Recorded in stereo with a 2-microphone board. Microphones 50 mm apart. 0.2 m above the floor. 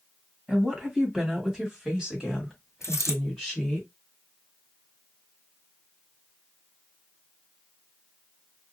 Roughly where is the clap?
No clap in this recording.